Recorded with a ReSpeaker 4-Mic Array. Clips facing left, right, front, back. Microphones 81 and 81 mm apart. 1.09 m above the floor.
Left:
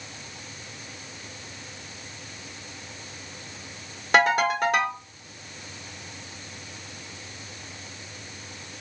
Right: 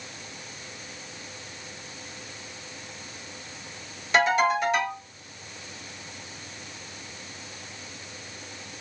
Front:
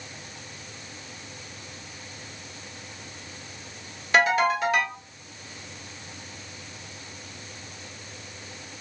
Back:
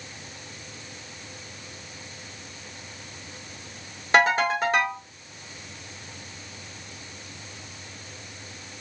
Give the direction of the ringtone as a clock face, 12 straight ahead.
8 o'clock.